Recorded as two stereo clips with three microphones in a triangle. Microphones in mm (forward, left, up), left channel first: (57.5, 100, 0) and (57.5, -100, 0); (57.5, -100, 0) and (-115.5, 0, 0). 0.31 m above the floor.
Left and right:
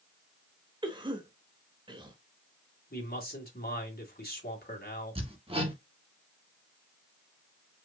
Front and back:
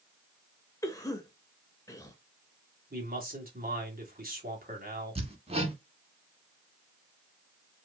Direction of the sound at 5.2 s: 150° right.